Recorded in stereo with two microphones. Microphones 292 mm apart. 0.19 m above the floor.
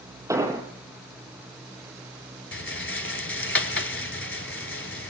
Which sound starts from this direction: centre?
An explosion, at 0.3 s.